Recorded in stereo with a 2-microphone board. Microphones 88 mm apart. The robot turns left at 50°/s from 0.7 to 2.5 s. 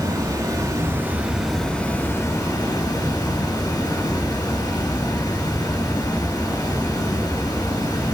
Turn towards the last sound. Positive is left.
turn(degrees=135)